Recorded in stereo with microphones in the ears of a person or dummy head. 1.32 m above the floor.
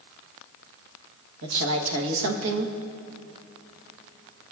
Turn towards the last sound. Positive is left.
turn(degrees=-65)  # may be behind; listen again after turning